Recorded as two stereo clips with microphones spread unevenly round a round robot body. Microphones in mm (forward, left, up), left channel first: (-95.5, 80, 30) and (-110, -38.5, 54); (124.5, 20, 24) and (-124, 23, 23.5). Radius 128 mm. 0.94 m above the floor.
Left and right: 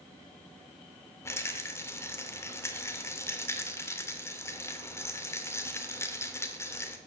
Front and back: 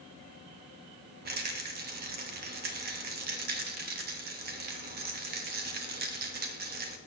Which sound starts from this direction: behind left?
A rattle, at 1.2 s.